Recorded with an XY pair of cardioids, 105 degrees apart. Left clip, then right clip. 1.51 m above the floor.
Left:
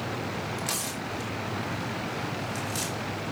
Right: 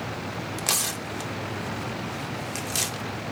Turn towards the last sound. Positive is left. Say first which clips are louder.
# right 4 dB
turn(degrees=-55)